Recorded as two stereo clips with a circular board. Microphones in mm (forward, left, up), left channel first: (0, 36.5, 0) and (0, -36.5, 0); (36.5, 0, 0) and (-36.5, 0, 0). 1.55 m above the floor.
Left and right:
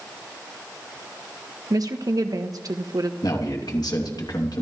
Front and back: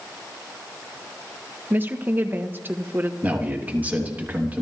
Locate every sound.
1.7 s a woman speaking: 120° right, 1.3 m
3.2 s a man speaking: 110° left, 3 m